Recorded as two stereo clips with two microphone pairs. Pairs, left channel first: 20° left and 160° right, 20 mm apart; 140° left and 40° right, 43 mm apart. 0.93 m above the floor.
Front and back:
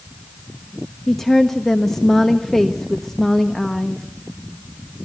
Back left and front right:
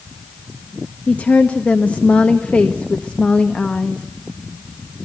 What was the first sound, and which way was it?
A woman speaking, 90° left.